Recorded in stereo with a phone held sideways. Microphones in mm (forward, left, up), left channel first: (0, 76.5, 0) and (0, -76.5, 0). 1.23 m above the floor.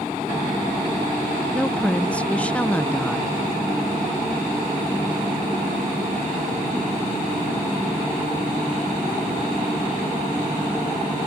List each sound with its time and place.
1.5 s a woman speaking: 10° left (ahead or behind)